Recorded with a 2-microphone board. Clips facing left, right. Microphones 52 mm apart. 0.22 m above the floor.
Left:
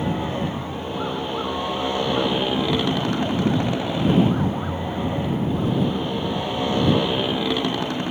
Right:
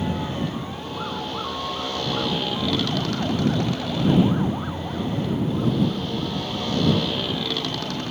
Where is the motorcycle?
20° left (ahead or behind).